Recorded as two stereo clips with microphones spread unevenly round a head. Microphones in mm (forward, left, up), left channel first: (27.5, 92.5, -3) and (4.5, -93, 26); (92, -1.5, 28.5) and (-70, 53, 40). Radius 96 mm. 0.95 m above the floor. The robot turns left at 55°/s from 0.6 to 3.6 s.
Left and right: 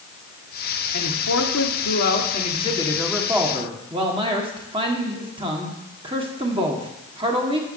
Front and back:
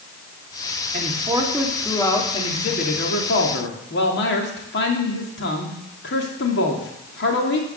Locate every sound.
0.9 s a man speaking: 115° left, 2.5 m; by 7.7 s 30° right, 2.5 m